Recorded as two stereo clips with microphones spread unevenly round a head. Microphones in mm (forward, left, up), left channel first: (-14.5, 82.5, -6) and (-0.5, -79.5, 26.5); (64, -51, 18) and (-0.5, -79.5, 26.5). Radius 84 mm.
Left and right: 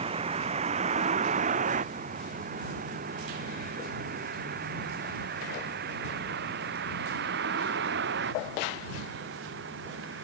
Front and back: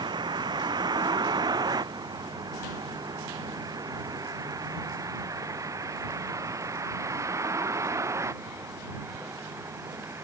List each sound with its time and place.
0.0 s a vehicle: 140° right; by 10.2 s 105° right